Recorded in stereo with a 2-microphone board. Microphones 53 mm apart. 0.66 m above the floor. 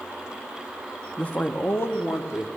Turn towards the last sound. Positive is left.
turn(degrees=60)  # may be behind; listen again after turning